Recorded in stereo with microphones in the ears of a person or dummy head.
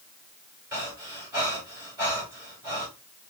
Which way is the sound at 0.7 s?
15° right (ahead or behind).